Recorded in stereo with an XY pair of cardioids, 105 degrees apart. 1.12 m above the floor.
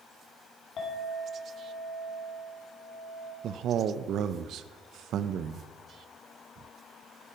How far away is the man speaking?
About 0.5 m.